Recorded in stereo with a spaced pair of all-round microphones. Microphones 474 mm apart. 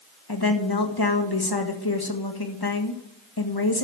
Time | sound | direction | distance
0.3 | a woman speaking | 50° left (ahead or behind) | 1.7 m